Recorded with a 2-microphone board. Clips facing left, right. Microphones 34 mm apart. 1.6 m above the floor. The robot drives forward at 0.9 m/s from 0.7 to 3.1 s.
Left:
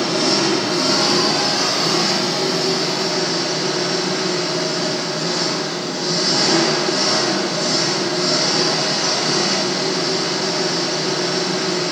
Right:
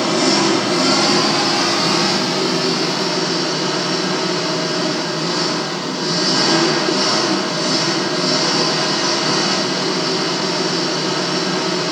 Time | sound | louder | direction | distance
0.0 | an engine running | right 2 dB | 60° right (ahead or behind) | 2.5 m